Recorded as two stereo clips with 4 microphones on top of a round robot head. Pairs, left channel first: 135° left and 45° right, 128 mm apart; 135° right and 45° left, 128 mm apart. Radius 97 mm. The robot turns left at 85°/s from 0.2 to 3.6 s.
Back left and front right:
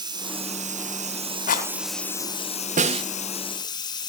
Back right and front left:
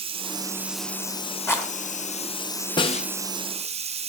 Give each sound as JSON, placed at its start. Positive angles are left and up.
{"t": 0.0, "sound": "running water", "azimuth_deg": 10, "distance_m": 1.3}
{"t": 1.5, "sound": "a rattle", "azimuth_deg": 155, "distance_m": 2.5}
{"t": 2.8, "sound": "a snare drum", "azimuth_deg": -75, "distance_m": 1.2}